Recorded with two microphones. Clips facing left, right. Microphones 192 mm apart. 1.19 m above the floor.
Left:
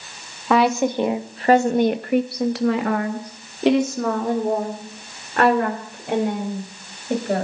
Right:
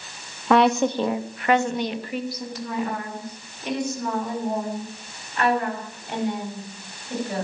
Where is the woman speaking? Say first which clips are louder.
Even; centre (ahead or behind), 1.6 m; by 7.5 s 70° left (ahead or behind), 5.5 m.